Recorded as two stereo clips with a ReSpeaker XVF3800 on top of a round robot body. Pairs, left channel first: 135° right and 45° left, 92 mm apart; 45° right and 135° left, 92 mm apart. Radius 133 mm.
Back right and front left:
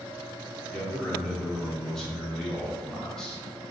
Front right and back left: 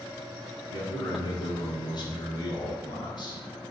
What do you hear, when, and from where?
0.7 s a man speaking: 55° right, 1.5 m